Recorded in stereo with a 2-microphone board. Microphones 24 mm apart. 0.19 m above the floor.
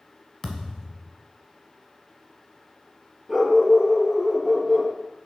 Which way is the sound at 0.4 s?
25° left (ahead or behind).